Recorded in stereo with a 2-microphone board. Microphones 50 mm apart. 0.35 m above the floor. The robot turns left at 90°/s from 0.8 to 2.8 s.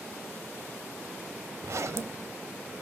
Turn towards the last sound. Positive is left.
turn(degrees=175)